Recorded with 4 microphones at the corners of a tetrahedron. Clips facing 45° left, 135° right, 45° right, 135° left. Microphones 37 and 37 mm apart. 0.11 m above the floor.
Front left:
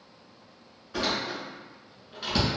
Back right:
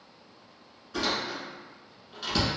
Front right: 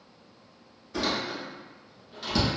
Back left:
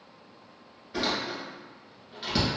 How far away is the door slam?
About 1.1 m.